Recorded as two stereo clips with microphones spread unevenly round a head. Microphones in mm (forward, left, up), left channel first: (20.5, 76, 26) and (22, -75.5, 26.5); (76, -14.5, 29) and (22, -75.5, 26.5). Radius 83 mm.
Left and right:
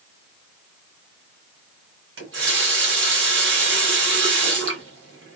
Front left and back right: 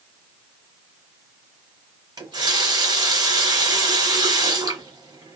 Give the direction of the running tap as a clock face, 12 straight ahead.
3 o'clock.